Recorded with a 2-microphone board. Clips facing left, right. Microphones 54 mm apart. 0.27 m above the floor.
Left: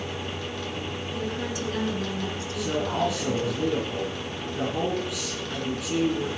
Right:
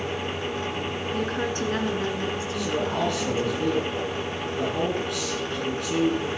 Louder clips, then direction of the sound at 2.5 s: Left 1 dB; centre (ahead or behind).